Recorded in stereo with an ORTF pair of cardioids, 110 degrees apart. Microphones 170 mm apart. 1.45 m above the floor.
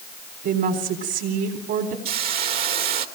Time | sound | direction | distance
0.4 | a woman speaking | 70° right | 4 m
2.0 | a hiss | 65° right | 2.5 m